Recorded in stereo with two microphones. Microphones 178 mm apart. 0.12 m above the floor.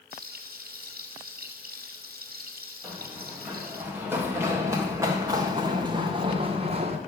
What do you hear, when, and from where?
0.1 s frying: 60° right (ahead or behind), 2.5 m
2.8 s running footsteps: 5° right (ahead or behind), 3.5 m; by 7.0 s 40° right (ahead or behind), 1.9 m